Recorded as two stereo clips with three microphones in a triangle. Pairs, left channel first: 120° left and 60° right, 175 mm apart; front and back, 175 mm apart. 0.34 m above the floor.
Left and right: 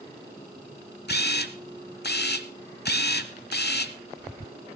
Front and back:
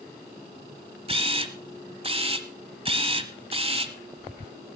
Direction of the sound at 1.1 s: 125° left.